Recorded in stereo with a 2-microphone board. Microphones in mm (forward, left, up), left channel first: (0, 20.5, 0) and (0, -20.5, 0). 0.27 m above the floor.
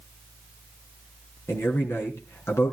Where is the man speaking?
70° left (ahead or behind), 3.5 m.